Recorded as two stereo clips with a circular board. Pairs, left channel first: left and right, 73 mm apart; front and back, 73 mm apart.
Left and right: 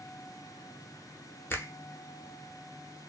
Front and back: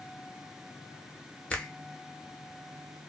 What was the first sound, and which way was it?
A finger snap, 60° left.